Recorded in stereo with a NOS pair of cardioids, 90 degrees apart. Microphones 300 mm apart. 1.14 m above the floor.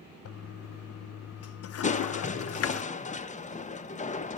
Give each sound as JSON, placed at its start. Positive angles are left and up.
{"t": 0.2, "sound": "a toilet flushing", "azimuth_deg": 55, "distance_m": 0.7}
{"t": 1.8, "sound": "crushing", "azimuth_deg": 25, "distance_m": 1.1}